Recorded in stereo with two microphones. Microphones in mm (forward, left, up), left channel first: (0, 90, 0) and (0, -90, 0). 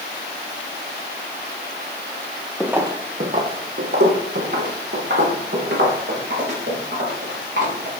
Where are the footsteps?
Centre (ahead or behind), 0.8 m; by 8.0 s 70° right (ahead or behind), 6 m.